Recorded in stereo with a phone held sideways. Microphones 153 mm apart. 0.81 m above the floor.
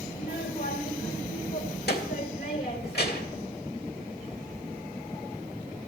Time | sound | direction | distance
0.1 | a child speaking | 85° left | 2.5 m